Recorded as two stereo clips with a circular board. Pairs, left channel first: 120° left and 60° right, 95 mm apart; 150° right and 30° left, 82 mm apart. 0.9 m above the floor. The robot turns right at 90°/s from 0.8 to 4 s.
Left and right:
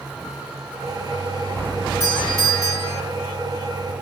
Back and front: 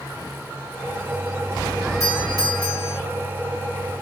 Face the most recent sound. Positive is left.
turn(degrees=-5)